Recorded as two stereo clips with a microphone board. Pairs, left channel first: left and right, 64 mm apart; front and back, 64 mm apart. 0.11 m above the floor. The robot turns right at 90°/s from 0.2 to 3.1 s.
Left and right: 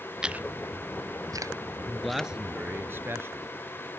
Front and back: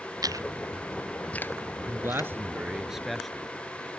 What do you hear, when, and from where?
0.2 s chewing: 170° right; by 2.3 s 20° left
1.9 s a man speaking: 160° left; by 3.5 s 90° right